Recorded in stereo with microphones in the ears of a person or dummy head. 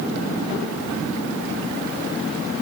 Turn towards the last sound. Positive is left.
No sound to turn to.